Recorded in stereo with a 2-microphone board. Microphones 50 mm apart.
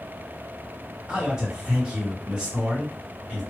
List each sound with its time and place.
1.1 s a man speaking: 20° right (ahead or behind), 2 m